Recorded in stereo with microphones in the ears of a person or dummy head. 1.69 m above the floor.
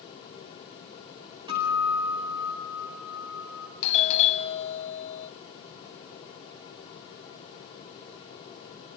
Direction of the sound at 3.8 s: 40° left (ahead or behind).